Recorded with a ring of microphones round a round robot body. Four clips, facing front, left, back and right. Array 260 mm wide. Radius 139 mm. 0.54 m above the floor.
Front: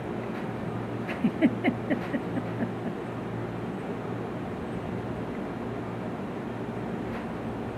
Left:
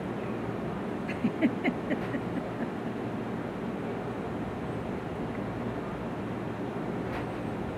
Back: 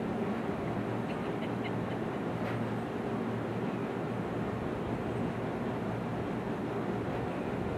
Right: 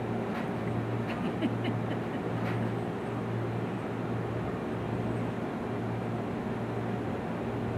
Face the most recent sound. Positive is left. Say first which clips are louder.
# left 6 dB, front 9 dB
turn(degrees=15)